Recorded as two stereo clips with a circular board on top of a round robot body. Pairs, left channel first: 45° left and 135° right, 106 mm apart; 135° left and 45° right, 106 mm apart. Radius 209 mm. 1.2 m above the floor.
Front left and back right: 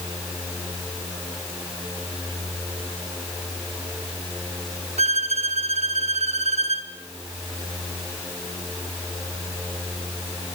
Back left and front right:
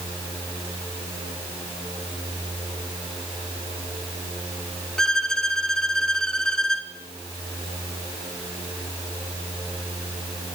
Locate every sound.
5.0 s a violin: 140° right, 2.5 m